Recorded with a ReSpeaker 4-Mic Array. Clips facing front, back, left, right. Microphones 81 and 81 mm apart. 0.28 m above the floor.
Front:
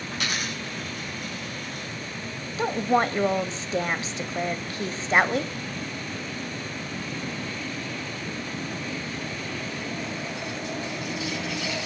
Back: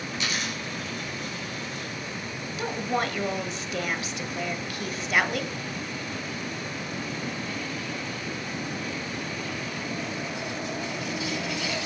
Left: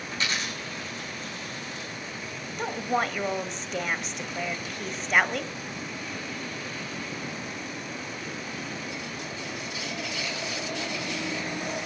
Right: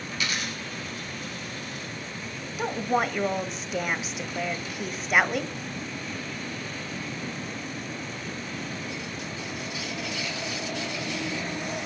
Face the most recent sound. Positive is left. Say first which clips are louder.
# front 6 dB, right 2 dB
turn(degrees=-10)